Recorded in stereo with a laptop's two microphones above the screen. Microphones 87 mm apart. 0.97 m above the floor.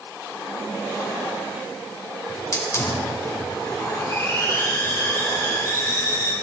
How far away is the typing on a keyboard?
No typing on a keyboard in this recording.